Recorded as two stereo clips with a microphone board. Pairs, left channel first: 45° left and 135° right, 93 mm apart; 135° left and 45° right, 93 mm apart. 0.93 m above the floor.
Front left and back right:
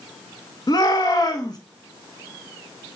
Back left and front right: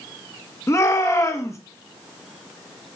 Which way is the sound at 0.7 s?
85° left.